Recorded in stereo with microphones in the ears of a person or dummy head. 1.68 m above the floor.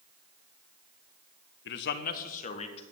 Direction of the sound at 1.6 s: 60° left (ahead or behind).